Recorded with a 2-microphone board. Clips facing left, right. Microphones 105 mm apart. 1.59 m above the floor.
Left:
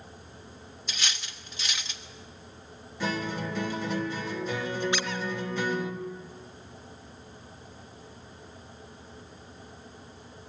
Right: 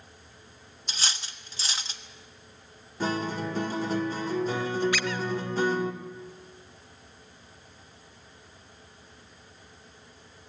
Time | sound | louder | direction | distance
0.9 | cutlery clinking | right 1 dB | 35° right (ahead or behind) | 1.1 m
3.0 | a guitar | right 2 dB | 40° right (ahead or behind) | 2.5 m
4.9 | a squeak | right 1 dB | 25° left (ahead or behind) | 1.0 m